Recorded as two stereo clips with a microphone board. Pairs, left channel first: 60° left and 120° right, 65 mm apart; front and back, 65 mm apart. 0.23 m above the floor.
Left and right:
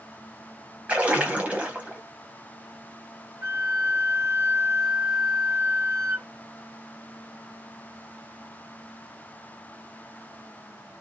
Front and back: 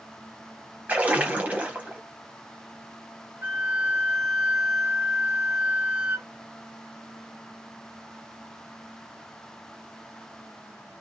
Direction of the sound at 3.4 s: 160° right.